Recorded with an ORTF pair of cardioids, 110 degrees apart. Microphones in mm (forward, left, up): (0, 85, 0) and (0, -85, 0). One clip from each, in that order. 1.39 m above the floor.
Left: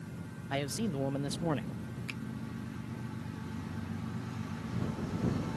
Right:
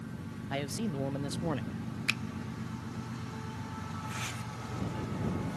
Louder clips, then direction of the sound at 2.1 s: Right 12 dB; 60° right.